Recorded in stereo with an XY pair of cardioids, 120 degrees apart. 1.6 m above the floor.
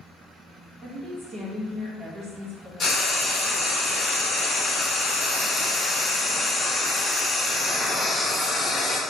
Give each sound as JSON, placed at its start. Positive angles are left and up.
{"t": 0.8, "sound": "a woman speaking", "azimuth_deg": -40, "distance_m": 0.9}
{"t": 2.8, "sound": "frying", "azimuth_deg": 35, "distance_m": 0.7}